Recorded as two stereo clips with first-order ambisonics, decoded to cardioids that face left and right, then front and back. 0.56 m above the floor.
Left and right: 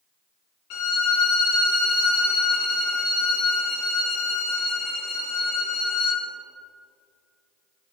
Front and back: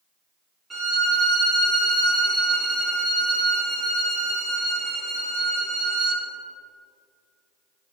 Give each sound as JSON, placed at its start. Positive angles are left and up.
{"t": 0.7, "sound": "a violin", "azimuth_deg": 100, "distance_m": 1.2}